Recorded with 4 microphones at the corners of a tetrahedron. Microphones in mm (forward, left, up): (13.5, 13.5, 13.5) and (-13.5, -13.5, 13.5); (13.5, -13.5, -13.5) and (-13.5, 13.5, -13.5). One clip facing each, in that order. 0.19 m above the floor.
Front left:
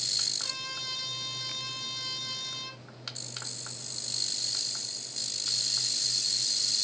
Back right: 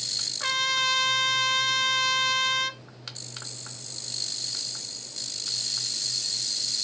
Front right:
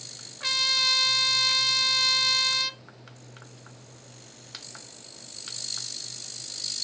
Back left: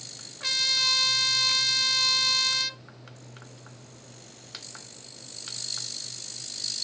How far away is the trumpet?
About 0.7 m.